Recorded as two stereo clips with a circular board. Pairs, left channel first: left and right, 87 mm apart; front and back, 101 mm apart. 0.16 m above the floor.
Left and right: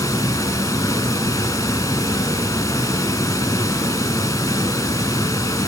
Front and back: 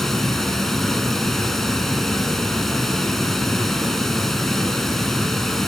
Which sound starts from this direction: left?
Running water, at 0.0 s.